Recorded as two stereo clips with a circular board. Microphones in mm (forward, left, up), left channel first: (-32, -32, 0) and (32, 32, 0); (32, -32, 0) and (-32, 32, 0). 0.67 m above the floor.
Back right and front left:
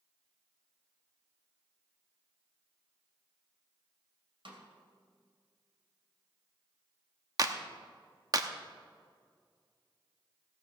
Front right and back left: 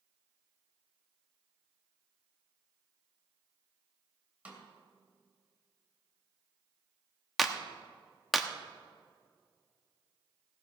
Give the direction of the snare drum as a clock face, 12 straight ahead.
10 o'clock.